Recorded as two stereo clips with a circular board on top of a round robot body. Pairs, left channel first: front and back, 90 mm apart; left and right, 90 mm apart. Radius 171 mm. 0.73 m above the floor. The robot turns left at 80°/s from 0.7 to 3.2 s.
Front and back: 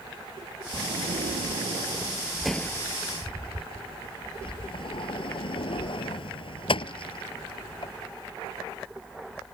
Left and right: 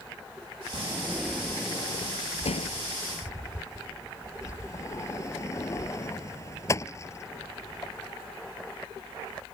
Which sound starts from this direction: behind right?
A sliding door, at 0.7 s.